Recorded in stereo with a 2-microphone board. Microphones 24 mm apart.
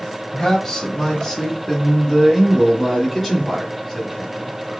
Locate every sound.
0.3 s a man speaking: 20° left (ahead or behind), 1.2 m; by 4.5 s 10° right (ahead or behind), 2.5 m